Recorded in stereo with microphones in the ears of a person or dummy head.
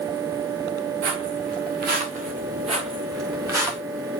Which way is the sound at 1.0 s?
60° right (ahead or behind).